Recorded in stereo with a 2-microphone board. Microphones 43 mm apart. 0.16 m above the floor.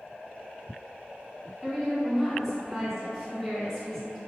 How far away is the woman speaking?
About 1.4 m.